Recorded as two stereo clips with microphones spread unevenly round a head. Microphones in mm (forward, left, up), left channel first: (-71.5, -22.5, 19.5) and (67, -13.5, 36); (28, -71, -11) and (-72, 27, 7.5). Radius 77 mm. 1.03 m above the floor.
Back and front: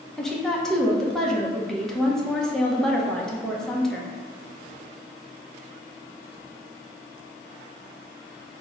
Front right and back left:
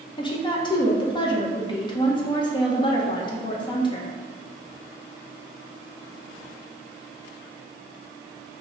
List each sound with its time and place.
0.2 s a woman speaking: 95° right, 0.6 m